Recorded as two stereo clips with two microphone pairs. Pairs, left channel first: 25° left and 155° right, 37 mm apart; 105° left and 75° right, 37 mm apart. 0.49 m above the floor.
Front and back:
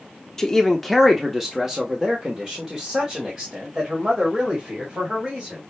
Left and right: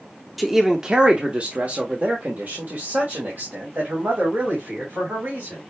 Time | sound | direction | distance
0.4 | a man speaking | 10° left | 0.8 m